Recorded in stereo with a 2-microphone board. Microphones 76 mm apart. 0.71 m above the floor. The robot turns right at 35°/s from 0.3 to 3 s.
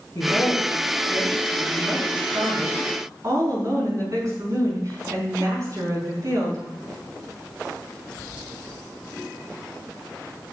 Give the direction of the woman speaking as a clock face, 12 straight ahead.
8 o'clock.